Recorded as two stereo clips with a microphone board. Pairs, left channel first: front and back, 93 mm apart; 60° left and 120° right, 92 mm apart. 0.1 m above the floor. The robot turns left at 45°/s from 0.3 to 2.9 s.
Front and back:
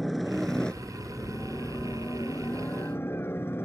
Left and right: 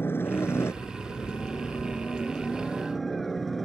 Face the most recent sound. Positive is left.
turn(degrees=-25)